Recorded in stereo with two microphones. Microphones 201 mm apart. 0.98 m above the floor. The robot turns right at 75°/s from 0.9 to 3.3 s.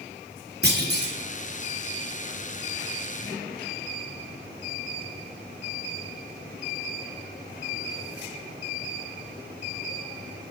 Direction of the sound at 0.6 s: 55° right (ahead or behind).